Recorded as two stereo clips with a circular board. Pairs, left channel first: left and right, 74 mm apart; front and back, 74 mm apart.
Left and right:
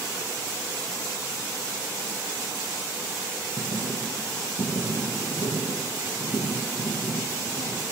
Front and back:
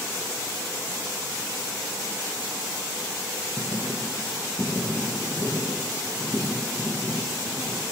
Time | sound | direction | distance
3.6 | writing | 70° left | 3.5 m